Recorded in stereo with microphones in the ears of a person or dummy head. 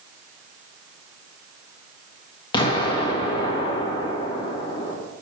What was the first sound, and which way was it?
An explosion, 25° left (ahead or behind).